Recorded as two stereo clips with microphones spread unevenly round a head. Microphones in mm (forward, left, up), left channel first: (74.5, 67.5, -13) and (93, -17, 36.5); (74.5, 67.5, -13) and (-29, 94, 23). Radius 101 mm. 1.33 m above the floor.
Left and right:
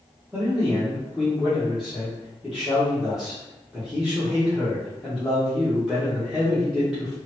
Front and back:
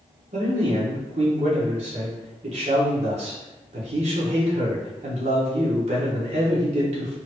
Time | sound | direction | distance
0.3 | a man speaking | 165° right | 0.9 m